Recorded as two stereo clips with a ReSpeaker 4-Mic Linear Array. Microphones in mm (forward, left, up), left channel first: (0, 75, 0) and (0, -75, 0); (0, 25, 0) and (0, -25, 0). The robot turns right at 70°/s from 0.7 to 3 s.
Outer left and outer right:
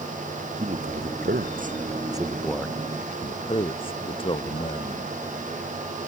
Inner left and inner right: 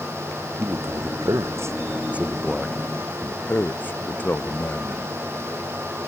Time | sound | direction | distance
0.6 | a man speaking | 125° right | ?